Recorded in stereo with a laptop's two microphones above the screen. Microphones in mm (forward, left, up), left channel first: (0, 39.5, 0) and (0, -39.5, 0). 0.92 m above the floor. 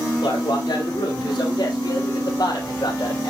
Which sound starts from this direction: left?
A man speaking, at 0.2 s.